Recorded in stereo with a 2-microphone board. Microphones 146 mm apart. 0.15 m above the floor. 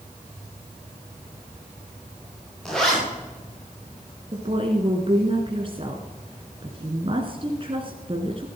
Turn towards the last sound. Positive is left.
turn(degrees=-40)  # may be behind; listen again after turning